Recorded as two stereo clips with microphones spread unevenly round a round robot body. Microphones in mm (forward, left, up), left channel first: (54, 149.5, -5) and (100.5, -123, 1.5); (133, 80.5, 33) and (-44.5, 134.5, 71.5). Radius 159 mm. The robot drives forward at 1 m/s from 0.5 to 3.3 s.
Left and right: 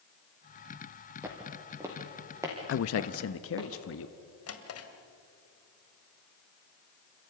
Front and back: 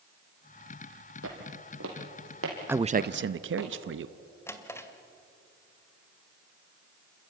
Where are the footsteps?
165° right, 2.5 m; by 3.7 s 160° right, 3 m.